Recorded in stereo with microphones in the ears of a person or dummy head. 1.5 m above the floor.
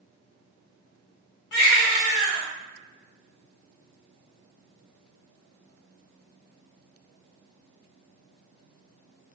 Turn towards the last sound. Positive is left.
turn(degrees=65)  # may be behind; listen again after turning